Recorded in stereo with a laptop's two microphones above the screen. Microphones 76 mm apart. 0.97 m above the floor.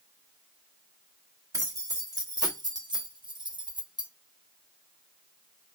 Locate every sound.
1.5 s keys jangling: 50° right (ahead or behind), 1.7 m; by 4.1 s 70° right (ahead or behind), 0.9 m